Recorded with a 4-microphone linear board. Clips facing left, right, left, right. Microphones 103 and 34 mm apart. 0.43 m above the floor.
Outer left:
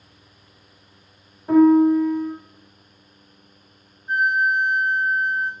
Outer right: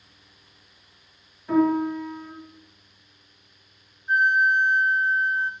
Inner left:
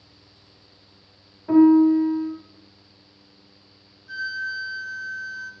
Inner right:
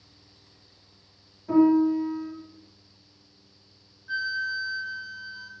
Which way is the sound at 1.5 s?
35° left (ahead or behind).